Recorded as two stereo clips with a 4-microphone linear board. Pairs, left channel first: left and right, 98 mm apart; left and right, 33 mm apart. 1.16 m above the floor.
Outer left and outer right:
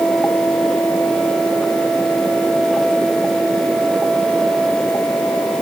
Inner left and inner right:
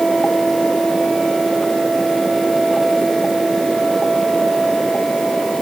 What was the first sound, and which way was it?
Only background noise.